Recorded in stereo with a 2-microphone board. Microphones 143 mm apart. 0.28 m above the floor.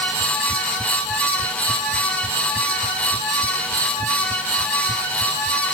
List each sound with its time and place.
Only background noise.